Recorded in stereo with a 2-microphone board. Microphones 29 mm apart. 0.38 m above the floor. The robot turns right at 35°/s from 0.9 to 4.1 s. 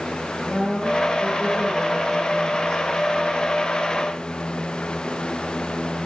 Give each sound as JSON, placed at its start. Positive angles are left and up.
{"t": 0.5, "sound": "a woman speaking", "azimuth_deg": 60, "distance_m": 6.5}